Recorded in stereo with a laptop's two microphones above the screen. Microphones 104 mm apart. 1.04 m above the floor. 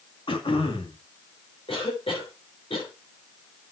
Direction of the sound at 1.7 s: 60° left (ahead or behind).